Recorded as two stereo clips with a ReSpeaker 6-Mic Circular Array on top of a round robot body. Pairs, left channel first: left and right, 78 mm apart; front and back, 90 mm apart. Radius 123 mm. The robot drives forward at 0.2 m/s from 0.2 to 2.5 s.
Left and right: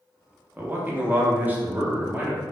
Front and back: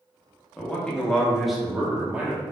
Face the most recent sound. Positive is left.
turn(degrees=-130)